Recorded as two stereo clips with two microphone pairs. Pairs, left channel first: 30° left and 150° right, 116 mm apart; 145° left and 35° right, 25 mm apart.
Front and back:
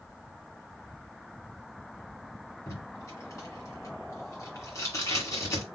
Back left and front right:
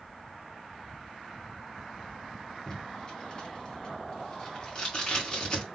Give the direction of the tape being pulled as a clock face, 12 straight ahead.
9 o'clock.